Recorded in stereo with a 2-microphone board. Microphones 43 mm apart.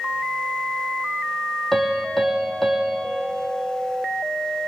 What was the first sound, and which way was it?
A piano, 5° left (ahead or behind).